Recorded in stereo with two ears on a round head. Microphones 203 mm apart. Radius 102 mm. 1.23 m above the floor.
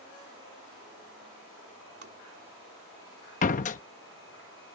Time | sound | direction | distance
2.0 | tapping | 45° right (ahead or behind) | ?
3.4 | a door slam | 35° left (ahead or behind) | ?